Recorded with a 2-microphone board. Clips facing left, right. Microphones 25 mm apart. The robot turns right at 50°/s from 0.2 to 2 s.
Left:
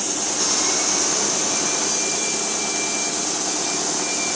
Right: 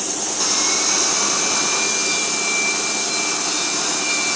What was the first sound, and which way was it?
Sawing, 155° right.